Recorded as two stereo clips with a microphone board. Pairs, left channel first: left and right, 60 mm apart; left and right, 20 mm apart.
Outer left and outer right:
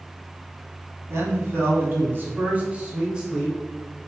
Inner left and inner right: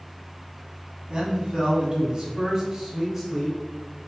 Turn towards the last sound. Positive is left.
turn(degrees=-5)  # may be behind; listen again after turning